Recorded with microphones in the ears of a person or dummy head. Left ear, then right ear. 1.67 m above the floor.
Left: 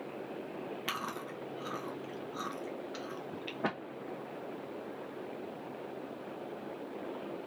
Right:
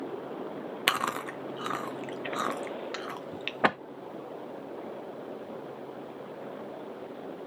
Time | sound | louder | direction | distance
0.9 | chewing | right 12 dB | 40° right (ahead or behind) | 0.9 m